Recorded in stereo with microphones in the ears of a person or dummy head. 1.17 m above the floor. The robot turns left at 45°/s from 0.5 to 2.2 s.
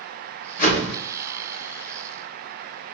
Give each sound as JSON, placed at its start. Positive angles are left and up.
{"t": 0.6, "sound": "a whoosh", "side_deg": 45, "distance_m": 1.1}